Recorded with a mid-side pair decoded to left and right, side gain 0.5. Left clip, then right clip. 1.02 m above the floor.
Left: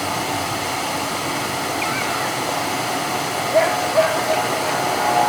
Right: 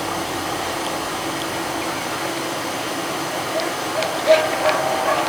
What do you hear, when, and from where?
0.0 s running water: 55° left, 4.5 m